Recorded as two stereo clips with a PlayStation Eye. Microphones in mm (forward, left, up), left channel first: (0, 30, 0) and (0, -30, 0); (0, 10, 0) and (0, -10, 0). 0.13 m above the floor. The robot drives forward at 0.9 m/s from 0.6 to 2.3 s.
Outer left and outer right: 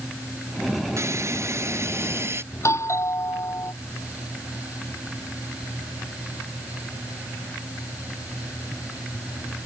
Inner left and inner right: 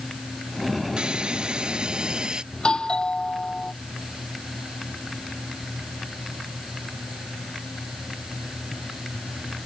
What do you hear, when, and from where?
1.0 s a hiss: 50° right (ahead or behind); by 2.4 s 45° right (ahead or behind)
2.5 s a doorbell: 50° left (ahead or behind)